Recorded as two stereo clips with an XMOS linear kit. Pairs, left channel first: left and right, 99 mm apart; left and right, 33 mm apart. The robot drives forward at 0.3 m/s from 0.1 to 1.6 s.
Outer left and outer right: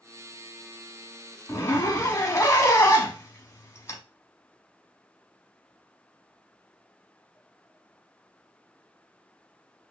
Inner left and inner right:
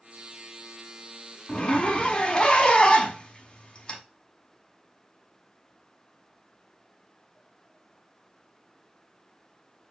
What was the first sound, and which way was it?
A zipper, 30° left (ahead or behind).